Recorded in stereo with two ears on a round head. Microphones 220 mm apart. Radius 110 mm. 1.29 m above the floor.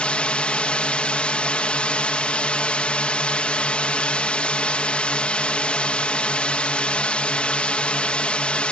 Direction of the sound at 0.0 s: 5° left (ahead or behind).